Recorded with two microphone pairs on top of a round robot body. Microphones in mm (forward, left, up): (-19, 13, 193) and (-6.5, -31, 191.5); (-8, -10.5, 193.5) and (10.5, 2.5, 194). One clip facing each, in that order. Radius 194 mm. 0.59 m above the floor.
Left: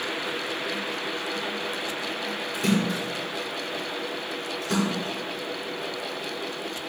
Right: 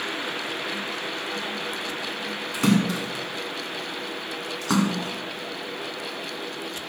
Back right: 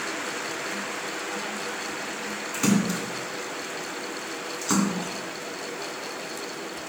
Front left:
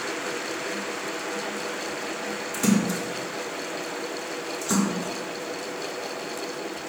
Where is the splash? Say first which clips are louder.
Right 3 dB, even; 80° right, 2.5 m.